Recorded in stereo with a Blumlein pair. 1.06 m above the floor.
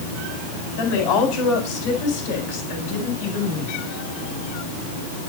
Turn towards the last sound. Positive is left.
turn(degrees=45)